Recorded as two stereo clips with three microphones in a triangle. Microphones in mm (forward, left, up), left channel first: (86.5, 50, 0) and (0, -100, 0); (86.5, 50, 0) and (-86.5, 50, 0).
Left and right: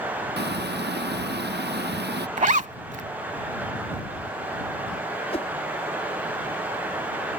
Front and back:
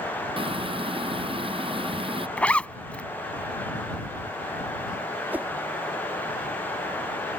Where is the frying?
120° right.